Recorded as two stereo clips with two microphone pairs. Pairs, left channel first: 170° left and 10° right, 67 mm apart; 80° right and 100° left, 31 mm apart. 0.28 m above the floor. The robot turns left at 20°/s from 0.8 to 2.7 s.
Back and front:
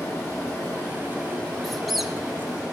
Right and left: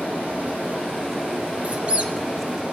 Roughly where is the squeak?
Left.